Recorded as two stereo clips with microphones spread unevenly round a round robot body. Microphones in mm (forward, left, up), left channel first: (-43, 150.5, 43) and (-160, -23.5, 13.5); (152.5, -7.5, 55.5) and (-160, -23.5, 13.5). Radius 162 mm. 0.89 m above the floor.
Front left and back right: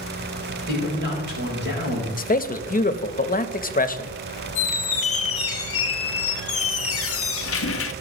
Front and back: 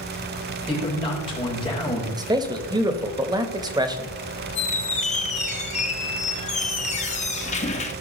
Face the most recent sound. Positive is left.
turn(degrees=75)